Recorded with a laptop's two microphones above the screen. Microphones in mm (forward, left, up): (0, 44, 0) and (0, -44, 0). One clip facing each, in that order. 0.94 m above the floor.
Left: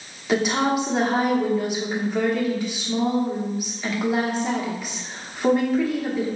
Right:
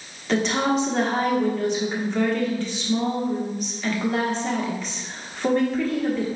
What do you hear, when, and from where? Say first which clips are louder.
0.3 s a woman speaking: left 1 dB; 10° left (ahead or behind), 1.0 m